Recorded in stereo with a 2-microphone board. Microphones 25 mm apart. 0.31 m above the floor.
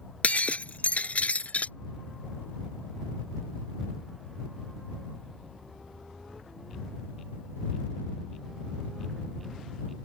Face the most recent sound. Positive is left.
turn(degrees=85)